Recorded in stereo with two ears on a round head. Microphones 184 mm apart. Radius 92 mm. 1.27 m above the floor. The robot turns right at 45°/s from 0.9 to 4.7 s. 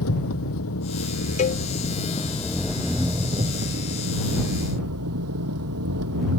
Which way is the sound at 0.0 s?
100° left.